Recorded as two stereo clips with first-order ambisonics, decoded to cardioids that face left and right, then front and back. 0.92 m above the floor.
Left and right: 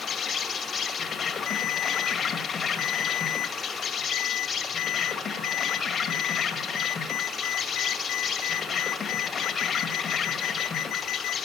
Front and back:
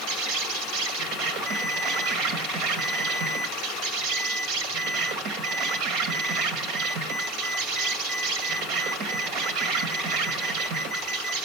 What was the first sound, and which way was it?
An insect, 155° left.